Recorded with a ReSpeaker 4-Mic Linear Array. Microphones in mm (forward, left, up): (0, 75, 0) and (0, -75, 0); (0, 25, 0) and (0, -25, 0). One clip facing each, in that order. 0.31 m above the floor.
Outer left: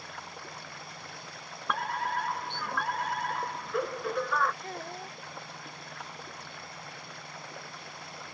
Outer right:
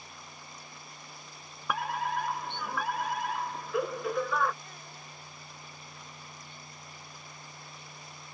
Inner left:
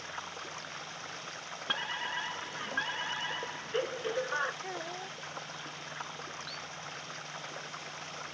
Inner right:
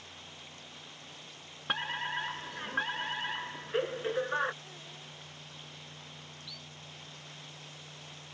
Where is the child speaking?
55° left (ahead or behind).